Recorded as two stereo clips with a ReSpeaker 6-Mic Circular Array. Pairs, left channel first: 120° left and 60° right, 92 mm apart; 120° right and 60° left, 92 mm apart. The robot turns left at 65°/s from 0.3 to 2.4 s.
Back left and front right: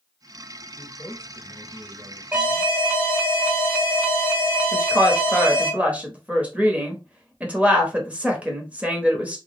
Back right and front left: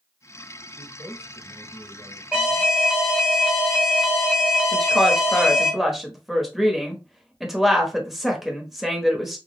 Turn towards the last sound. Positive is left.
turn(degrees=-20)